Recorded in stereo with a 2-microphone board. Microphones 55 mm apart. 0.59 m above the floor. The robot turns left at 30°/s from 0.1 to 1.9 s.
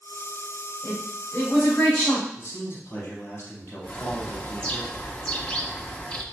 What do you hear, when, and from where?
0.8 s a woman speaking: 50° left, 3 m; by 2.3 s 20° left, 3 m
2.4 s a man speaking: 45° left (ahead or behind), 3.5 m
3.8 s a bird: 15° left (ahead or behind), 0.8 m